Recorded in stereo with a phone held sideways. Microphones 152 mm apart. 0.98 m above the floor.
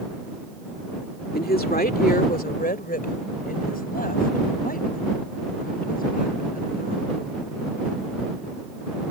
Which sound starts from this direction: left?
A woman speaking, at 1.3 s.